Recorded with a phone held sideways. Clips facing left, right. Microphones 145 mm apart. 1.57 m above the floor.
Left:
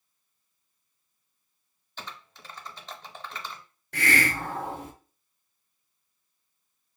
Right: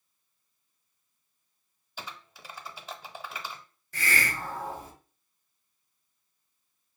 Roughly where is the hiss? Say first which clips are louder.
Left 5 dB; left.